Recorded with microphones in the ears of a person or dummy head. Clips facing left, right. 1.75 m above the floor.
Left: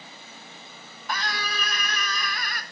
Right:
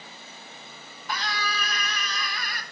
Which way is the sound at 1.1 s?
45° left (ahead or behind).